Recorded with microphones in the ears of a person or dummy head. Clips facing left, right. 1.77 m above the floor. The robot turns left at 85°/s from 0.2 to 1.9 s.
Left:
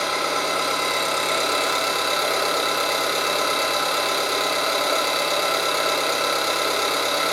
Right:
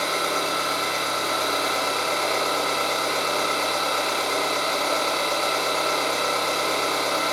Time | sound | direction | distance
0.0 | an engine running | 170° left | 0.9 m